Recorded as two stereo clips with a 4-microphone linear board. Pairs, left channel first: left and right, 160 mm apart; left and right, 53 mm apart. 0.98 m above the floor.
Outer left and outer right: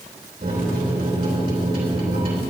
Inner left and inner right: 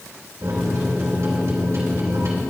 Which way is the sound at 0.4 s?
70° right (ahead or behind).